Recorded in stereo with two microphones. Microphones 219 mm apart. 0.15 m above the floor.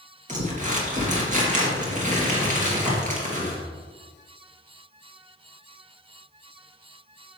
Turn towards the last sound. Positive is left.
turn(degrees=-35)  # may be behind; listen again after turning